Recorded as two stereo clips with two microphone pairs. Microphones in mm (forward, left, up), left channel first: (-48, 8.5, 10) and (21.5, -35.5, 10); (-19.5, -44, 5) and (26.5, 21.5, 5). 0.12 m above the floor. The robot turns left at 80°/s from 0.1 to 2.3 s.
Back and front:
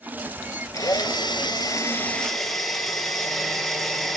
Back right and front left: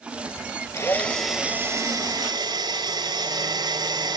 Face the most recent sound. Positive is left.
turn(degrees=60)